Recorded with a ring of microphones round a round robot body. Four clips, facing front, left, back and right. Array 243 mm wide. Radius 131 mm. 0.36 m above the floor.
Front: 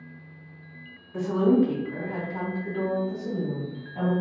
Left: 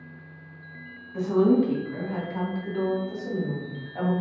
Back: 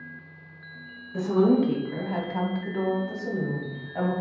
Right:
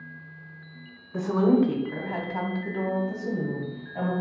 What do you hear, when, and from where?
1.1 s a woman speaking: 85° right, 1.4 m; by 4.1 s 160° left, 1.3 m